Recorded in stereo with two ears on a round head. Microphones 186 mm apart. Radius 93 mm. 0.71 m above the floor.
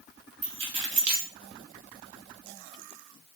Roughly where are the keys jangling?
Right.